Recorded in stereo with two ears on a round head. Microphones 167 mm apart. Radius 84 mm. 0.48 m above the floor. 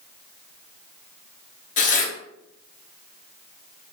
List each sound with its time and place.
1.8 s tearing paper: 40° left (ahead or behind), 0.7 m